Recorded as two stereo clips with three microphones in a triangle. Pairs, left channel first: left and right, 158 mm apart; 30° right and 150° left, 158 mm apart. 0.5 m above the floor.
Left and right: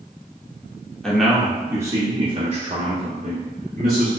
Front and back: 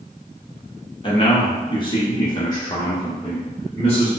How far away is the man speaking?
About 1.0 m.